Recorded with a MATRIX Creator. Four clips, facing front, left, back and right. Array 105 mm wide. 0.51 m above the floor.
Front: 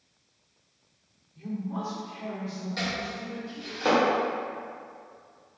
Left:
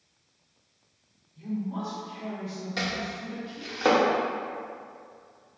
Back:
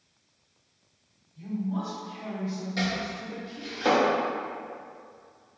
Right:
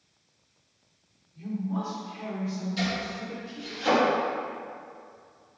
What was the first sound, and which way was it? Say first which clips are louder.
A man speaking: right 1 dB, back 2 dB; 25° right.